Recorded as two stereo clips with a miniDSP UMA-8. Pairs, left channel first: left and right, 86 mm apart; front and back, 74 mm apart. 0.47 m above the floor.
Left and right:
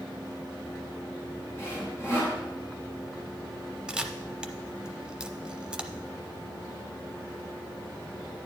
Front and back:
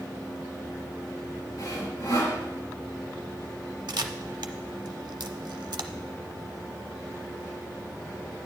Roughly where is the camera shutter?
Behind.